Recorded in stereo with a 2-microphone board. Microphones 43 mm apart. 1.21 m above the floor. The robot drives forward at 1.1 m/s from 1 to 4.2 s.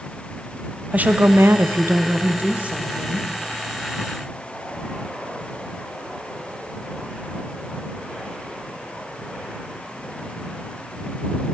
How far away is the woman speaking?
About 1.0 m.